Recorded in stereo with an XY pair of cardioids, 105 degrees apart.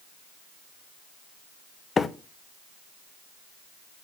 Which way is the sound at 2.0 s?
35° left.